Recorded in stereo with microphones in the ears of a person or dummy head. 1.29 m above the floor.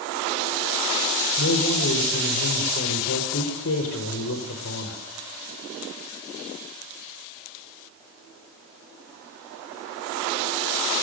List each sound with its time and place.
1.4 s a man speaking: 75° left (ahead or behind), 4 m